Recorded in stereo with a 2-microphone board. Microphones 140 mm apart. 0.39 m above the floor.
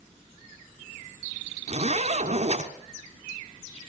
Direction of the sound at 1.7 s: 55° right (ahead or behind).